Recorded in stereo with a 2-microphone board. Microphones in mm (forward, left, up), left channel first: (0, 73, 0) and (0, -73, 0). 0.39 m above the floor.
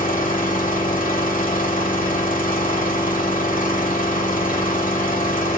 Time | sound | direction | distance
0.0 | an engine running | 70° left (ahead or behind) | 1.2 m